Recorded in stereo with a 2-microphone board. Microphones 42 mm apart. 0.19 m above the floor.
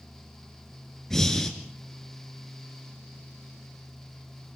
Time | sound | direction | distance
1.1 | breathing | 10° left (ahead or behind) | 2.5 m